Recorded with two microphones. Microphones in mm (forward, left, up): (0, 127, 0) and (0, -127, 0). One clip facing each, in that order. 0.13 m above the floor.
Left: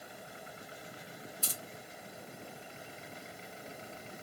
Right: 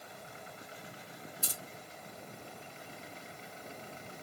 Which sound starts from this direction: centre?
Keys jangling, at 1.4 s.